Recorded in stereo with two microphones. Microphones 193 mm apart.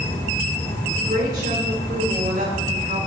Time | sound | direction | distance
0.9 | a woman speaking | 55° right (ahead or behind) | 4.5 m